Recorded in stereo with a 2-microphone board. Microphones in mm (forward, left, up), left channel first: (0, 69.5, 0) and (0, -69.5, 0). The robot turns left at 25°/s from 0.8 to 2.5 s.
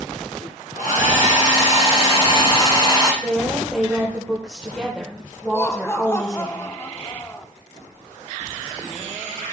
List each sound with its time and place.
0.8 s a hair dryer: 75° left, 4 m; by 3.1 s 30° left, 4 m
3.2 s a woman speaking: centre (ahead or behind), 1.7 m
5.5 s laughter: 20° left (ahead or behind), 0.9 m